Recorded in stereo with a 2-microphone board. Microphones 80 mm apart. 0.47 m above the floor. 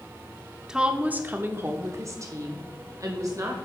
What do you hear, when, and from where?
0.7 s a woman speaking: 10° right (ahead or behind), 0.8 m; by 3.5 s 45° right (ahead or behind), 1.6 m